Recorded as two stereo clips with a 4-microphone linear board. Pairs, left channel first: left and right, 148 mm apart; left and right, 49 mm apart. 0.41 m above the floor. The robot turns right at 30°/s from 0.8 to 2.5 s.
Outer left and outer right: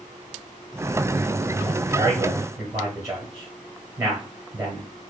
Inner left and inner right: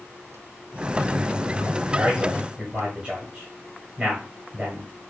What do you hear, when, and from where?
1.9 s a man speaking: 30° right (ahead or behind), 1.4 m; by 4.9 s 25° right (ahead or behind), 1.4 m